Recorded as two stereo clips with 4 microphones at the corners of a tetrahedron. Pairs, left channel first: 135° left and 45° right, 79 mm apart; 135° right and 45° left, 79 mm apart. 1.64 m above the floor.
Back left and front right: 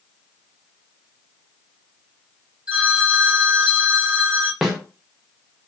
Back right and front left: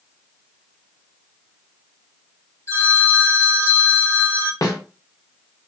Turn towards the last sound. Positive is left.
turn(degrees=-130)